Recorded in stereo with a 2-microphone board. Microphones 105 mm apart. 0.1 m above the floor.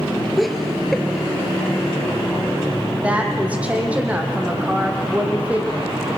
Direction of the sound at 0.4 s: Centre (ahead or behind).